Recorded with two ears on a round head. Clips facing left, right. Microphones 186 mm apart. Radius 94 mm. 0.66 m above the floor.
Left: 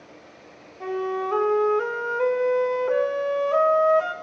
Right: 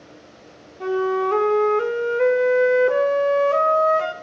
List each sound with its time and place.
0.8 s a flute: 25° right (ahead or behind), 0.6 m